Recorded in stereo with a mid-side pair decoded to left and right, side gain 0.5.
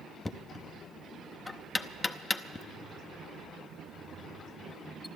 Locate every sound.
0.2 s knocking: 20° left, 0.7 m